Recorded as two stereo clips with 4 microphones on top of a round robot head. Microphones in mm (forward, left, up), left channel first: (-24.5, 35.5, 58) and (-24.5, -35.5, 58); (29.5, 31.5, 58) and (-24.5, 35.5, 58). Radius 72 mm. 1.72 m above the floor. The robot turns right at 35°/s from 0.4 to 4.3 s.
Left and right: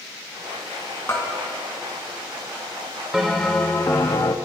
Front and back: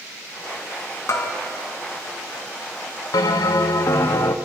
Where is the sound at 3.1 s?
5° right, 1.1 m; by 4.3 s 35° left, 1.1 m.